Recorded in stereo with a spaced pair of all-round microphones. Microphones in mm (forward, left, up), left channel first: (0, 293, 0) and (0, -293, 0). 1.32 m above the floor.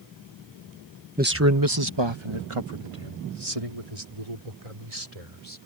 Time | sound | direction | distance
1.2 | a man speaking | 15° right (ahead or behind) | ?